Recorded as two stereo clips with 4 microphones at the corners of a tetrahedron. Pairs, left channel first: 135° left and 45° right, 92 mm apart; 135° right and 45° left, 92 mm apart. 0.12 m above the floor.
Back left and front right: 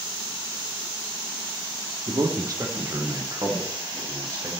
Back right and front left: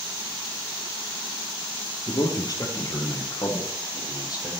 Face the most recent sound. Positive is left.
turn(degrees=-95)